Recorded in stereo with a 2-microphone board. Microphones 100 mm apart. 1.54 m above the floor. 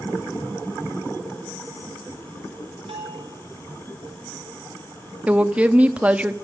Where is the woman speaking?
15° right (ahead or behind), 0.8 m.